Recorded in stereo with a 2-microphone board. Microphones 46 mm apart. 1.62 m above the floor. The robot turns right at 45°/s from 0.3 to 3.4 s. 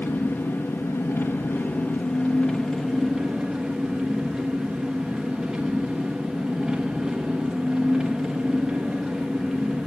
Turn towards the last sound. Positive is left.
turn(degrees=-165)